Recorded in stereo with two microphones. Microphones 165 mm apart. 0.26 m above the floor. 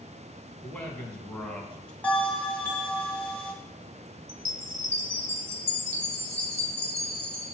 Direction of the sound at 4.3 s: 15° right (ahead or behind).